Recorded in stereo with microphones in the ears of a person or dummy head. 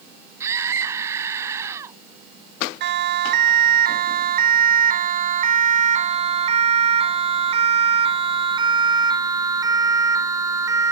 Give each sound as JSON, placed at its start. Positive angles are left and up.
{"t": 0.4, "sound": "a scream", "side_deg": -20}
{"t": 2.8, "sound": "a siren", "side_deg": -60}